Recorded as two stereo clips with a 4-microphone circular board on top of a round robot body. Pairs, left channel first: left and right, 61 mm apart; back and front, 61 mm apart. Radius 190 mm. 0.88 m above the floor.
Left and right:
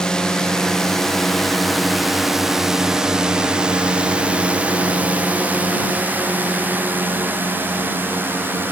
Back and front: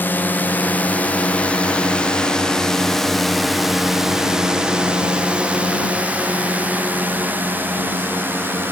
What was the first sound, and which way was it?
A drone, 160° left.